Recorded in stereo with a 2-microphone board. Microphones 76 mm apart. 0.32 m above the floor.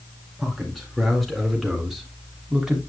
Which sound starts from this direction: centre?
A man speaking, at 0.4 s.